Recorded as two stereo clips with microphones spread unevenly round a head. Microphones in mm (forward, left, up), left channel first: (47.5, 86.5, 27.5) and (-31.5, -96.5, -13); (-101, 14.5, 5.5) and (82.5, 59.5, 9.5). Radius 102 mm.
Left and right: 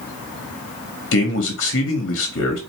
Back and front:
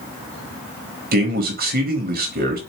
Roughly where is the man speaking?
Ahead left.